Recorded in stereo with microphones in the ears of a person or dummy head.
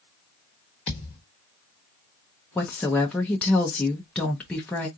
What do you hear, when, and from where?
0.9 s a thud: 25° left (ahead or behind), 1.2 m
2.5 s a woman speaking: 5° left (ahead or behind), 0.7 m